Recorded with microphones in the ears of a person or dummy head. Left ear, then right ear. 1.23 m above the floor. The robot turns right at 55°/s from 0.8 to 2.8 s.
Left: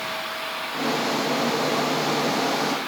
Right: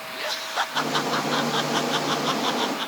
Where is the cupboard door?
I don't hear a cupboard door.